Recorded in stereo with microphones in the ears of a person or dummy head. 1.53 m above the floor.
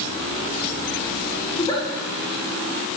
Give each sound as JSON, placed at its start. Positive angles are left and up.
{"t": 1.5, "sound": "a giggle", "side_deg": 35, "distance_m": 1.6}